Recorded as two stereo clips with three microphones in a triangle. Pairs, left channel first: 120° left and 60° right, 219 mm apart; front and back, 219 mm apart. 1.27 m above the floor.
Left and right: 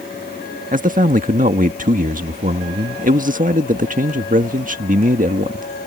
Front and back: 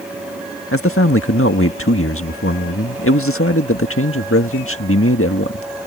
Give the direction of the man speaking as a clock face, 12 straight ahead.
12 o'clock.